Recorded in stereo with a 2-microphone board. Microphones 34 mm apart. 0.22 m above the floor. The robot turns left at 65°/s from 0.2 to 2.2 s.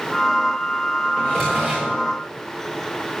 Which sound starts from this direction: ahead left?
A drawer, at 1.2 s.